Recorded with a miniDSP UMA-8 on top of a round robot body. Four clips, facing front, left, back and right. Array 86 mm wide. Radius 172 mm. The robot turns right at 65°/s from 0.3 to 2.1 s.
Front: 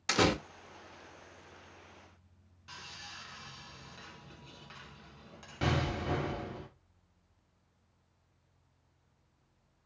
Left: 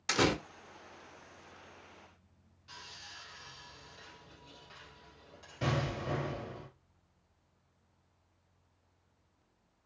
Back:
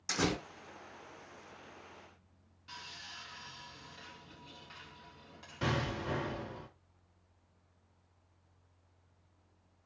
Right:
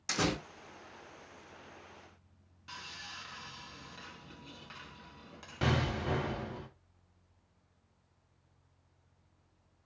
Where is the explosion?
55° right, 2.5 m.